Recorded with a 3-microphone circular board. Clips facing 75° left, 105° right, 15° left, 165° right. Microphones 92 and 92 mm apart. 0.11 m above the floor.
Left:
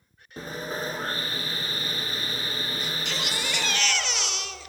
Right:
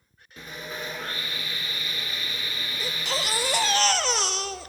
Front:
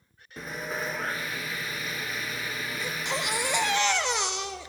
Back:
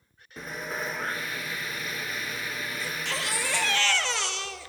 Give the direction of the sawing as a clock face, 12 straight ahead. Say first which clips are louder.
Left 4 dB, front 1 dB; 9 o'clock.